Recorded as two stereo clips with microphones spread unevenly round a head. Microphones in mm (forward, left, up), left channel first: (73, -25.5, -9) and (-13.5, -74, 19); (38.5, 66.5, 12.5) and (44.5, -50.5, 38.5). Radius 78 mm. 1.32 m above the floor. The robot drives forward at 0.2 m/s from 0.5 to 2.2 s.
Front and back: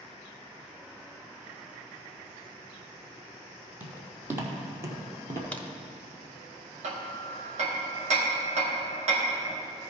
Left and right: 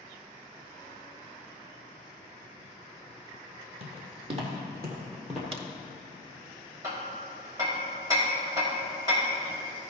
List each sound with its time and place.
3.8 s footsteps: 90° right, 2.5 m; by 5.4 s 165° right, 1.8 m
5.5 s a crack: 45° right, 0.9 m
6.8 s hammering: 155° right, 1.3 m